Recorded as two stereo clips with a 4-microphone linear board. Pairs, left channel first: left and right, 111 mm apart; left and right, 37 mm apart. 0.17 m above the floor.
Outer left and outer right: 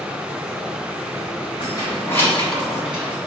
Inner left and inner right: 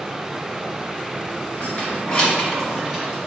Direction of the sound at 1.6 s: 40° left (ahead or behind).